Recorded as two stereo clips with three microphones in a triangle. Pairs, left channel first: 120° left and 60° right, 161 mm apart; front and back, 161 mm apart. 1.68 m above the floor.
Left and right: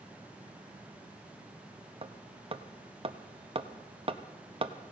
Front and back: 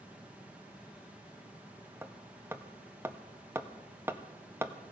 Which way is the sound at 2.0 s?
110° right.